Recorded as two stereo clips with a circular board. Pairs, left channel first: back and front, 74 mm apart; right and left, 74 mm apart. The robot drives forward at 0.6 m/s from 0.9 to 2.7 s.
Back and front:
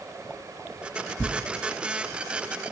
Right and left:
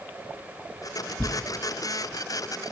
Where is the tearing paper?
145° right, 0.9 m; by 1.4 s 150° right, 1.0 m.